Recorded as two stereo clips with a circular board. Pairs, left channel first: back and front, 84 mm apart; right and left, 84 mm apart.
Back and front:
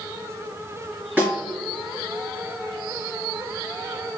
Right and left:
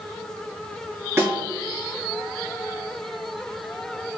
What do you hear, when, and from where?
1.2 s a snare drum: 50° left, 1.7 m